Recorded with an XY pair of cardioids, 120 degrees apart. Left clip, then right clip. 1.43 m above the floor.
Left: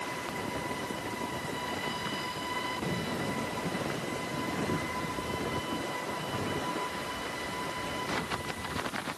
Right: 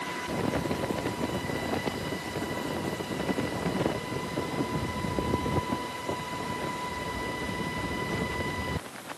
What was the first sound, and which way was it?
Only background noise.